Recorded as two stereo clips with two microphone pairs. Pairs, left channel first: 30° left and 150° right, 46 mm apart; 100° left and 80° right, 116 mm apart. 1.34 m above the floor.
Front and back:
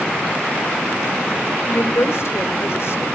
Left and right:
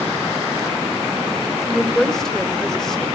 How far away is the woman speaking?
About 4 m.